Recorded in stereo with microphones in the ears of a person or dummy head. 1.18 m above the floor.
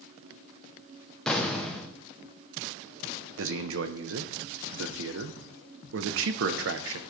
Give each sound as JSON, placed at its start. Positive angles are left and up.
{"t": 1.3, "sound": "an explosion", "side_deg": 5, "distance_m": 0.8}
{"t": 3.4, "sound": "a man speaking", "side_deg": -65, "distance_m": 0.7}